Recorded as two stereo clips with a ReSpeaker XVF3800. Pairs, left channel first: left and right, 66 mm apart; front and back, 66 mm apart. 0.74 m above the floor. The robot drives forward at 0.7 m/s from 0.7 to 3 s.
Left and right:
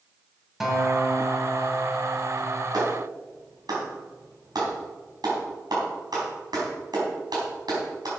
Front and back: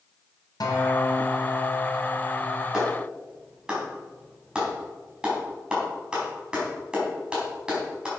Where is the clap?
105° right, 4.5 m.